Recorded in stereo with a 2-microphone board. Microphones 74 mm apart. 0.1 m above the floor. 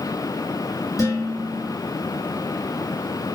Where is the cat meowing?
I don't hear a cat meowing.